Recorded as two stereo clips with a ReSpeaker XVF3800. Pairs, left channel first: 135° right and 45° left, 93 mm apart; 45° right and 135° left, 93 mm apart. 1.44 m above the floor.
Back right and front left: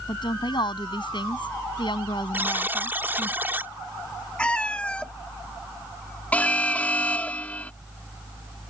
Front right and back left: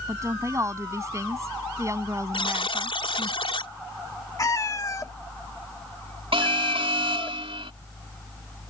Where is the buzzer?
25° right.